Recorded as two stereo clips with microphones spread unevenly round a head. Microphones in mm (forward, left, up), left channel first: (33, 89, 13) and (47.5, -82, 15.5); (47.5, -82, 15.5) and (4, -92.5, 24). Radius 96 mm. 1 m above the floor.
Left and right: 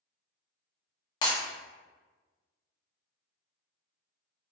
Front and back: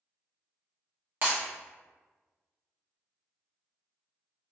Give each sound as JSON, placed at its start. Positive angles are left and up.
{"t": 1.2, "sound": "breaking glass", "azimuth_deg": 160, "distance_m": 0.5}